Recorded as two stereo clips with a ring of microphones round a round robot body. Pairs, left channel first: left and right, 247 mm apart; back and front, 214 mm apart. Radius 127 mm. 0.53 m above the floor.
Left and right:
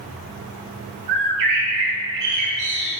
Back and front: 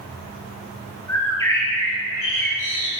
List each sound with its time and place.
1.1 s a bird: 100° right, 5.5 m